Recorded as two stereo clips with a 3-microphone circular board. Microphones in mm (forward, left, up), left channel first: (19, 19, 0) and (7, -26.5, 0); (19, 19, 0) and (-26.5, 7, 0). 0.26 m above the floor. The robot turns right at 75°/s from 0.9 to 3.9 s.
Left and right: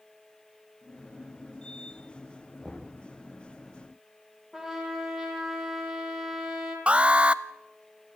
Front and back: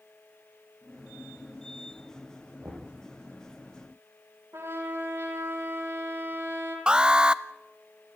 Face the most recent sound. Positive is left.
turn(degrees=-120)